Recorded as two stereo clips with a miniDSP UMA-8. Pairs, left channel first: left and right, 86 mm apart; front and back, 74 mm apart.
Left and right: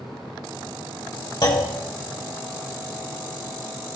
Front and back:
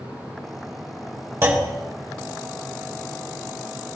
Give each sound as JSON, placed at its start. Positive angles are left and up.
{"t": 1.4, "sound": "a clunk", "azimuth_deg": 125, "distance_m": 3.0}